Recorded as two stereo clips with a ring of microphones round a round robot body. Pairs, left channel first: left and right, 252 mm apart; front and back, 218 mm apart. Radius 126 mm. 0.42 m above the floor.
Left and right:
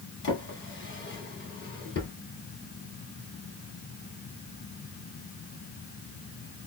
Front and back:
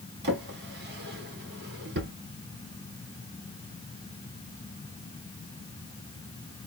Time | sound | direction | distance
0.2 | a drawer | 140° left | 1.5 m